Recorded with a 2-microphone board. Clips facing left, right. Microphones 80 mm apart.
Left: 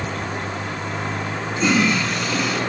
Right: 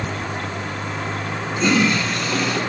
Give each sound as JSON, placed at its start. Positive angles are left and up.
{"t": 1.6, "sound": "a toilet flushing", "side_deg": 5, "distance_m": 1.3}